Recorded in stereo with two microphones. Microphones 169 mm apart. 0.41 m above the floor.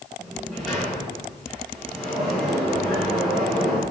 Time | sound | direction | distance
0.2 | a sliding door | centre (ahead or behind) | 6 m